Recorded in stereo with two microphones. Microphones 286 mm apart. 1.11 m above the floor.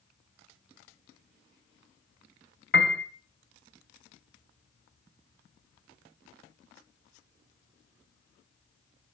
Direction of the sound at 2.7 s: 40° left (ahead or behind).